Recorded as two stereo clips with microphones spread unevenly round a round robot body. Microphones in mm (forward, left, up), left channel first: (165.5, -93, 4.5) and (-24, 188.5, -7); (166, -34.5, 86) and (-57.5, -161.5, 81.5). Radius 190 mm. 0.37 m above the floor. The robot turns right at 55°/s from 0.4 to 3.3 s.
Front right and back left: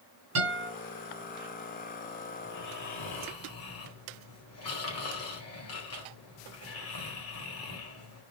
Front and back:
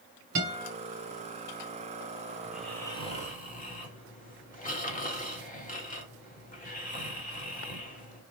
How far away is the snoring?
About 2 m.